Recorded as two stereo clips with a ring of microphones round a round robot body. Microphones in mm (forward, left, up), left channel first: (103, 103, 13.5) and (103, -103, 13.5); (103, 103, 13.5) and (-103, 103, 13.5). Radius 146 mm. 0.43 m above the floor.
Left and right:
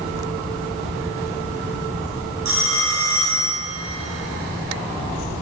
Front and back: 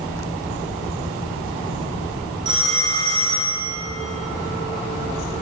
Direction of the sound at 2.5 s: 105° right.